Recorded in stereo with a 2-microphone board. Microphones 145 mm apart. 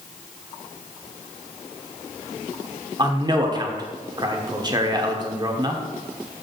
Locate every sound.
3.0 s a man speaking: 30° right (ahead or behind), 0.9 m